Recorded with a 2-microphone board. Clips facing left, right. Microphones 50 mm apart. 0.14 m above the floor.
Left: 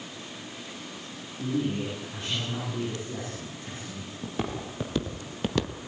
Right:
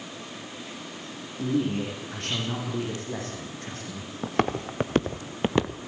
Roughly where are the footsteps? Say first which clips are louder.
Right 7 dB; right.